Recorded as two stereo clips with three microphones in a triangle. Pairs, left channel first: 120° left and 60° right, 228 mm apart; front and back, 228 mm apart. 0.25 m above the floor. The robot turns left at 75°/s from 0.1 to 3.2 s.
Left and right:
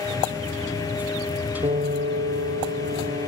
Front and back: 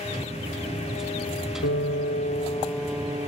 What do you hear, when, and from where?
1.6 s a piano: 5° left; by 3.3 s 115° right